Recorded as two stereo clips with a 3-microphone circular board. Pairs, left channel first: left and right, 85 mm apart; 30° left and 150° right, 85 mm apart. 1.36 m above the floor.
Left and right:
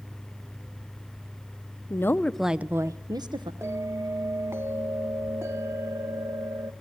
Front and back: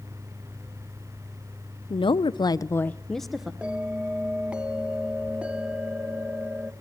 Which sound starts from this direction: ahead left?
A woman speaking, at 1.9 s.